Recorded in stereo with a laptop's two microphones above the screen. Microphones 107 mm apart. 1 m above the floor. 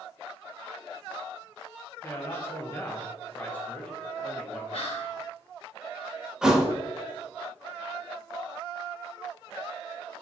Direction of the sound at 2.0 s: 20° left (ahead or behind).